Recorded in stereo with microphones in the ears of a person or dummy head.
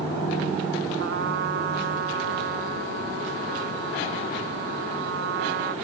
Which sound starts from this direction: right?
A trumpet, at 1.0 s.